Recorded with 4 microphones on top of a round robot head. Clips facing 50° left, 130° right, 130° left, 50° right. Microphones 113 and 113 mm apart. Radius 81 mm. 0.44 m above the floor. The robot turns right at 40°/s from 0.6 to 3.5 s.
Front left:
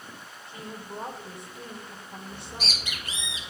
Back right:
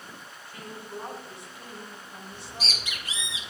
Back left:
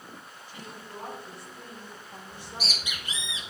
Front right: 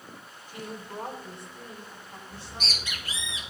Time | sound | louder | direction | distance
0.5 | a woman speaking | front left 1 dB, front right 5 dB | 15° right | 1.4 m
2.3 | a bird | even, back left 1 dB | 35° left | 2.5 m